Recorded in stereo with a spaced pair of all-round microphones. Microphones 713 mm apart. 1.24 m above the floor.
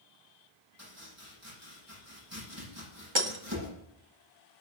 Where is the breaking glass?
40° right (ahead or behind), 1.5 m.